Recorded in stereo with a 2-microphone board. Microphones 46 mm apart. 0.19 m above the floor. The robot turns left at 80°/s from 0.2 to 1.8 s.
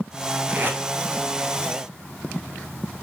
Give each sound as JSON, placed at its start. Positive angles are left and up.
{"t": 0.5, "sound": "tape being pulled", "side_deg": -40, "distance_m": 0.7}